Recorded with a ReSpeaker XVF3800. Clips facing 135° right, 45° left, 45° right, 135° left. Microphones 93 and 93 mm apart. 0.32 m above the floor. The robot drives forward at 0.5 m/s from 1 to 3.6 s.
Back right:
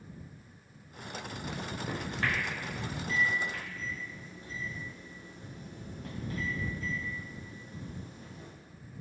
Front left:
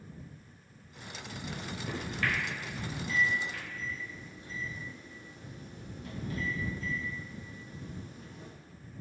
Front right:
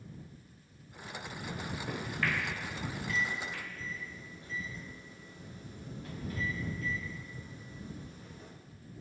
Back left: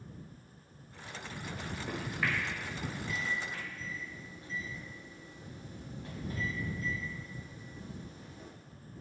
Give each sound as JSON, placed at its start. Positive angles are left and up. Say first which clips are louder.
{"t": 1.5, "sound": "a microwave", "louder": "back right 1 dB, front right 1 dB", "azimuth_deg": -90, "distance_m": 0.6}